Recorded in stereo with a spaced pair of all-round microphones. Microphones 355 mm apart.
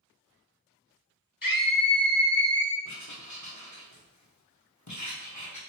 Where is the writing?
50° left (ahead or behind), 1.0 m.